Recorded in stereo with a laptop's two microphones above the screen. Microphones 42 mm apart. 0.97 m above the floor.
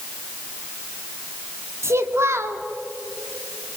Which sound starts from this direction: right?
A child speaking, at 1.8 s.